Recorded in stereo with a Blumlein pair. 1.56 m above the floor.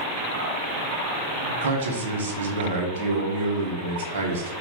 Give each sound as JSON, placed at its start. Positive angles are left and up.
{"t": 1.6, "sound": "a man speaking", "azimuth_deg": -60, "distance_m": 1.1}